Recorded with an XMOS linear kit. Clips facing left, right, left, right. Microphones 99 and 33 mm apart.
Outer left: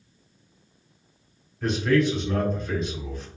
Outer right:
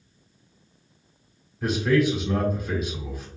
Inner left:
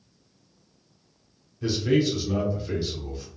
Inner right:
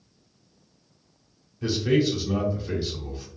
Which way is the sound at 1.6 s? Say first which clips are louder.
Even, even; 5° right (ahead or behind).